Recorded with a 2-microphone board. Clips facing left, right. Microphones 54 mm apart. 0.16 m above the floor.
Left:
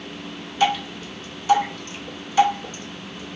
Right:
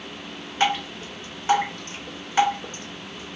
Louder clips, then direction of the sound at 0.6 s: Left 2 dB; 35° right (ahead or behind).